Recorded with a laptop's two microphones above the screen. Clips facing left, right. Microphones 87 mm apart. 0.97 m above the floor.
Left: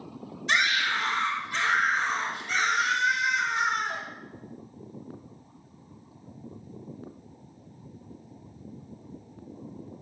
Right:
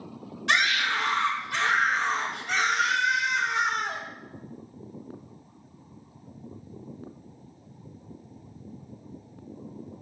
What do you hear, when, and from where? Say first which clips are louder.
0.5 s a scream: right 1 dB; 75° right (ahead or behind), 3 m